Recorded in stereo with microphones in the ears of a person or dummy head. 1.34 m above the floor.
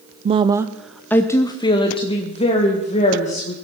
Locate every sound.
0.2 s a woman speaking: 35° right (ahead or behind), 0.5 m; by 3.5 s 35° left (ahead or behind), 2.0 m